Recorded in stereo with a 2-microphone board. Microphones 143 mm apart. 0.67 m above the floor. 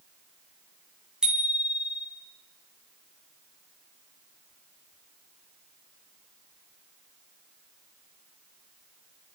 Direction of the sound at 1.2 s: 5° right (ahead or behind).